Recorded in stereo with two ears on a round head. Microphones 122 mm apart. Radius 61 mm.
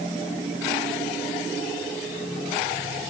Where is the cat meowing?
No cat meowing in this recording.